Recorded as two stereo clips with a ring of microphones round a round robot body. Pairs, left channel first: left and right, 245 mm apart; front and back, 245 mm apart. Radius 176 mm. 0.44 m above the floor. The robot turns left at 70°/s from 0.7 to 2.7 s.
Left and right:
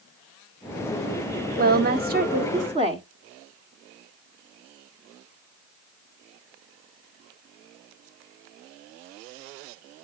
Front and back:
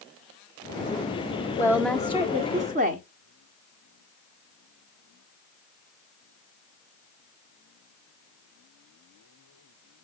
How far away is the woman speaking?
About 1.1 m.